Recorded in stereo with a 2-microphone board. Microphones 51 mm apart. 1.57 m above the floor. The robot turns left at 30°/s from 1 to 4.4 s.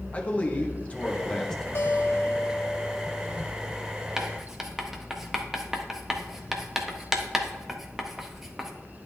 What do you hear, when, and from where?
0.1 s a man speaking: 25° left (ahead or behind), 1.3 m; by 1.6 s 5° left (ahead or behind), 1.3 m
1.8 s a guitar: 60° left, 1.2 m; by 3.4 s 15° left, 1.2 m
4.2 s writing: 10° right (ahead or behind), 1.0 m; by 8.7 s 5° right (ahead or behind), 1.0 m